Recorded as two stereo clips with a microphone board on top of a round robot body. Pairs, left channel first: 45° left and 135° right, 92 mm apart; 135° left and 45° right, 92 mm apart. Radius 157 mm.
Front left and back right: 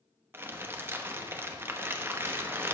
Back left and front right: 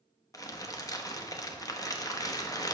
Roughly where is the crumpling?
Behind.